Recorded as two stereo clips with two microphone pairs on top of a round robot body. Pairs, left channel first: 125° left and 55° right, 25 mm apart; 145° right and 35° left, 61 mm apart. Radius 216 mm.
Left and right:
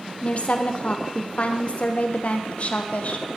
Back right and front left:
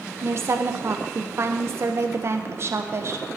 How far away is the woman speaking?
About 0.8 m.